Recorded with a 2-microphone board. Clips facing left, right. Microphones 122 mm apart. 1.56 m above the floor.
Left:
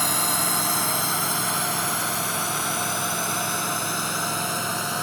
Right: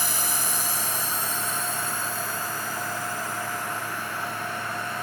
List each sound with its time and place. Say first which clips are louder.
0.0 s a drone: left 5 dB; 65° left (ahead or behind); by 5.0 s 85° left